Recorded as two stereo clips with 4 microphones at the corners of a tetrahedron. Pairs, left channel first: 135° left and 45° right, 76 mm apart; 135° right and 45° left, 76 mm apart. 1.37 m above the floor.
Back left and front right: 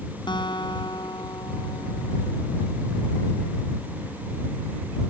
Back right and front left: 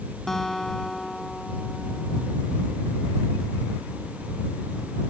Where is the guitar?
140° left.